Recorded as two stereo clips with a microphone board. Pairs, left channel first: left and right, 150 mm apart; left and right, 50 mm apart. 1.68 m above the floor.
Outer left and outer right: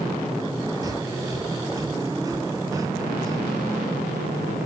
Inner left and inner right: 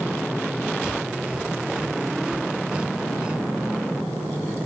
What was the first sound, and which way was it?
Breathing, 20° right (ahead or behind).